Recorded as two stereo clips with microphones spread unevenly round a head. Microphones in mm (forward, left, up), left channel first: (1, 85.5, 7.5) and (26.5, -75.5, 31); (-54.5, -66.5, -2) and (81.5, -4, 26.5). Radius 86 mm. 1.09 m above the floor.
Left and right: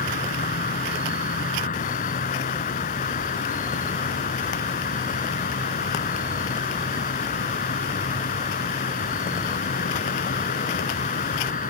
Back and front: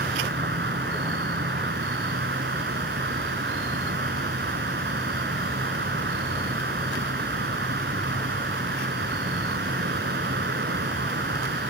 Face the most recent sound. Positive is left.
turn(degrees=55)